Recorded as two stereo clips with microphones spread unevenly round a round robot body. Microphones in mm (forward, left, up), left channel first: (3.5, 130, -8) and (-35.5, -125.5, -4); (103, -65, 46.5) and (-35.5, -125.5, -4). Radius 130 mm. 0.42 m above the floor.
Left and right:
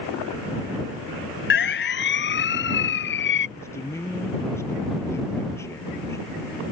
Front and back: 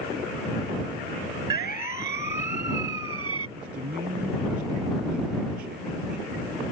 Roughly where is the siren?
Behind left.